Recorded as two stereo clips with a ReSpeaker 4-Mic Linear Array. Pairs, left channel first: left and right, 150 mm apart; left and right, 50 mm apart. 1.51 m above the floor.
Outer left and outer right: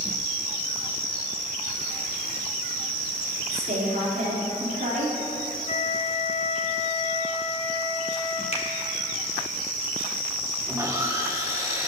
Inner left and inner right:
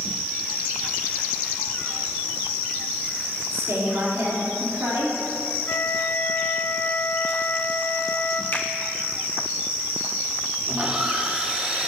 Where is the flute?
45° left (ahead or behind), 0.6 m.